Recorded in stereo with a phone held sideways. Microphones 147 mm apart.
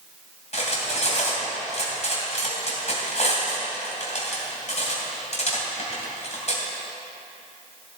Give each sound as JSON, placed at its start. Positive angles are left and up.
{"t": 0.5, "sound": "cutlery clinking", "side_deg": 55, "distance_m": 2.5}